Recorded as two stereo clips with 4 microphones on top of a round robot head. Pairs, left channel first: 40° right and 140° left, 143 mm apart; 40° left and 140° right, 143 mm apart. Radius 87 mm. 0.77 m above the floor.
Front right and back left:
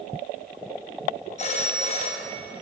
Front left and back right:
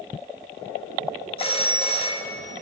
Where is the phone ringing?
5° right, 0.9 m.